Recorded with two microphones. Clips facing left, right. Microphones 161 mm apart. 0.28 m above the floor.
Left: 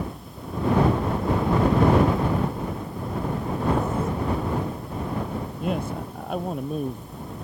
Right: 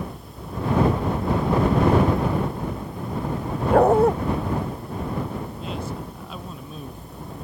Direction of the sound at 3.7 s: 70° right (ahead or behind).